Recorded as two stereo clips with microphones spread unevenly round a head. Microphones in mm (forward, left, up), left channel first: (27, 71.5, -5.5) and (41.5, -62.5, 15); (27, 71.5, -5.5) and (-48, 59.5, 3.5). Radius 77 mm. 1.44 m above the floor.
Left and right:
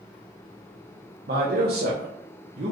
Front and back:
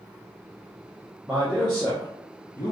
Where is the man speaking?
90° right, 1.0 m; by 2.7 s 40° right, 1.1 m.